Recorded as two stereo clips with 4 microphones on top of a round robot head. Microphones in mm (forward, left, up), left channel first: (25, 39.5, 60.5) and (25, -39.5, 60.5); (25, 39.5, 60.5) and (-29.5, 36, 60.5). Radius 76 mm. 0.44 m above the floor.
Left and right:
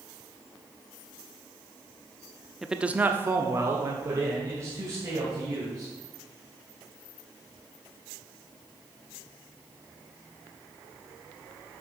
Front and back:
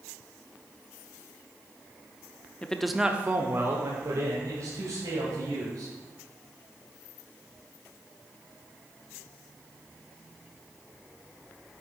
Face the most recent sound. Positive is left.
turn(degrees=-145)